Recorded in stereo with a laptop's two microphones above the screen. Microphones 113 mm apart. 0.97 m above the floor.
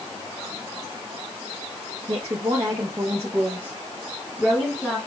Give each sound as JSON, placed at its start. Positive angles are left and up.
{"t": 2.1, "sound": "a woman speaking", "side_deg": -55, "distance_m": 1.6}